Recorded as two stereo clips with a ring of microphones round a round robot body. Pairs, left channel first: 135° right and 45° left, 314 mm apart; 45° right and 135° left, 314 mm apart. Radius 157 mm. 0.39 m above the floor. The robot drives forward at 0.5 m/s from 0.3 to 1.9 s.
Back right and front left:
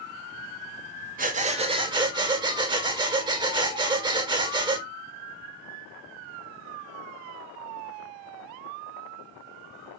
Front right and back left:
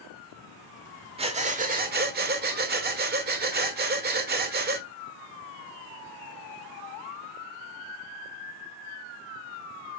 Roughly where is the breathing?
Left.